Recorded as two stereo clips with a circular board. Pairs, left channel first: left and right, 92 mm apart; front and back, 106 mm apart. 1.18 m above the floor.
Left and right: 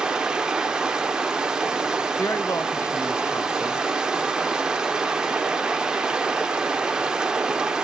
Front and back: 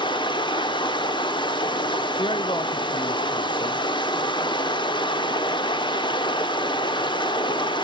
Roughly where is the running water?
Ahead.